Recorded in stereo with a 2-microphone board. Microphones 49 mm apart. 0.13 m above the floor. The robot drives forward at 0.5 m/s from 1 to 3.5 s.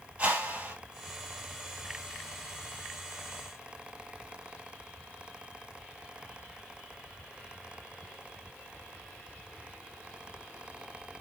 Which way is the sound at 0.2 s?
25° right (ahead or behind).